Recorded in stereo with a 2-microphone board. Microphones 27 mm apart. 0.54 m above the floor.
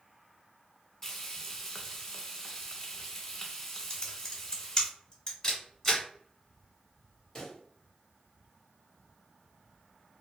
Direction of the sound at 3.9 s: 20° left (ahead or behind).